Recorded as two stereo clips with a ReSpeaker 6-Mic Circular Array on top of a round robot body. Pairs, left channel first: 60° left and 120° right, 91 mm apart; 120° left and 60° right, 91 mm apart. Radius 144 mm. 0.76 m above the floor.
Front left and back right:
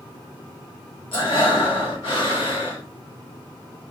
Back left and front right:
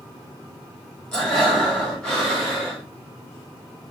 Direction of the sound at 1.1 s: 35° left.